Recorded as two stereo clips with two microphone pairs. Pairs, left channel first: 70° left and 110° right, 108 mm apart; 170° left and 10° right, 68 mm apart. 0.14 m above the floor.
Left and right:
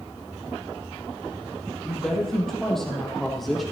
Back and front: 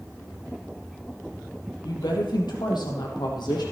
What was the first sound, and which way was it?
A woman speaking, 155° left.